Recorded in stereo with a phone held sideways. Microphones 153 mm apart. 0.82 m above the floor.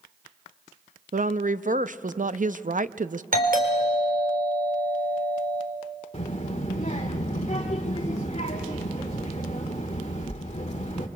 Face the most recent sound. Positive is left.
turn(degrees=40)  # may be behind; listen again after turning